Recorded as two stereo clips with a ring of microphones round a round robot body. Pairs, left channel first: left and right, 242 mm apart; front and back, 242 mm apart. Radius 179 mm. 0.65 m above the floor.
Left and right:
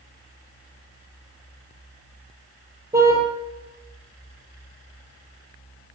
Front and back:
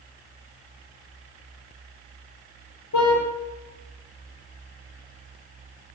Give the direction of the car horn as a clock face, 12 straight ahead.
12 o'clock.